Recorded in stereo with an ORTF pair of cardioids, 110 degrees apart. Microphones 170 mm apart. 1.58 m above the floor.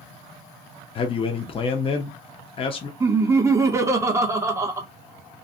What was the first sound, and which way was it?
A man speaking, 35° left.